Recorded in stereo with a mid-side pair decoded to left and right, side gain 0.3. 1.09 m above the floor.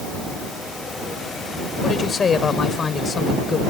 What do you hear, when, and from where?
1.8 s a woman speaking: 60° left